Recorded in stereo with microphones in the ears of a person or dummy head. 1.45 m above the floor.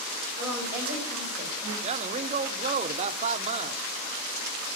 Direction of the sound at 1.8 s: 35° right (ahead or behind).